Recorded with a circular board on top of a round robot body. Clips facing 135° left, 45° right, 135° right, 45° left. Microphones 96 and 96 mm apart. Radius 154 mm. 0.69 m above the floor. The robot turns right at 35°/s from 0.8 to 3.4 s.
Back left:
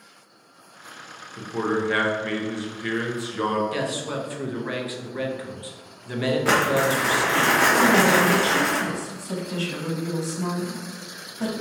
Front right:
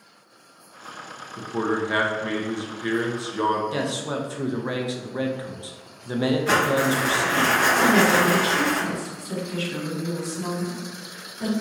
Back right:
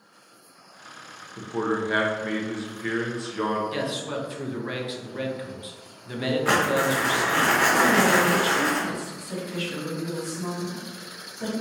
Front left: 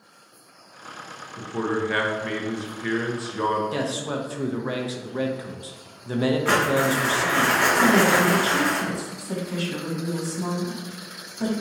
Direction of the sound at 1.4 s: 105° right.